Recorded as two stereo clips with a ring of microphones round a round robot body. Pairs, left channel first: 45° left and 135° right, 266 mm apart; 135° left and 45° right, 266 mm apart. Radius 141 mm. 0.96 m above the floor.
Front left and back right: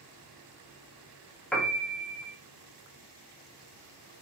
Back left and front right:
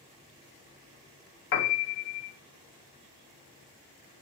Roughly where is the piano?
Behind left.